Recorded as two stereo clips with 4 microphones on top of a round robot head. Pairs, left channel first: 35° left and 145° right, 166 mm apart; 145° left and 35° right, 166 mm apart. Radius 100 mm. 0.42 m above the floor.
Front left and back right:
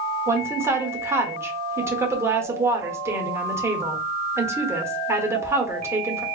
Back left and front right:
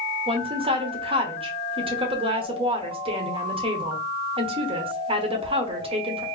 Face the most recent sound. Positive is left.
turn(degrees=-75)